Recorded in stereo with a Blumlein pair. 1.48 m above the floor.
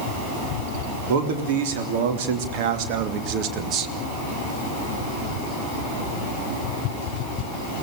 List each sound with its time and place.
1.1 s a man speaking: 50° right, 3.5 m; by 3.9 s 30° right, 1.6 m